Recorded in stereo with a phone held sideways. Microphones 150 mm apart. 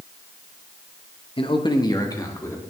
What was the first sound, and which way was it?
A man speaking, 35° left (ahead or behind).